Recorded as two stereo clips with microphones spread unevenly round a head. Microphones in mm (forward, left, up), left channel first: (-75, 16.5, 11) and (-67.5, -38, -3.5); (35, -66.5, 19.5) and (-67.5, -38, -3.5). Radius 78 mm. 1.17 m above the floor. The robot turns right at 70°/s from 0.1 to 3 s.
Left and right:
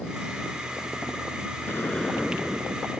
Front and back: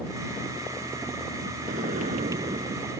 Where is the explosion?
145° left; by 2.9 s 125° right.